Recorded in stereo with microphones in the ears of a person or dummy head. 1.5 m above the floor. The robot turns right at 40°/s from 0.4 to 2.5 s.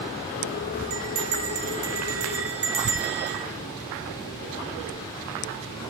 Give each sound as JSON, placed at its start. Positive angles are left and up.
{"t": 0.9, "sound": "a bell", "azimuth_deg": -85, "distance_m": 1.2}